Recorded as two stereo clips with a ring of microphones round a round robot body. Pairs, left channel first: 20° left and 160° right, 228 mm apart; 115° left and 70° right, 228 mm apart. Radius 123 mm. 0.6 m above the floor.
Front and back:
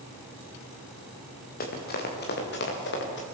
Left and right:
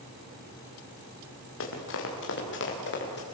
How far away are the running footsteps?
About 6 m.